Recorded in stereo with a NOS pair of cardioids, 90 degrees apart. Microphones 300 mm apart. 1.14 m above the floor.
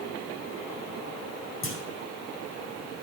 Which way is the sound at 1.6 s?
45° left.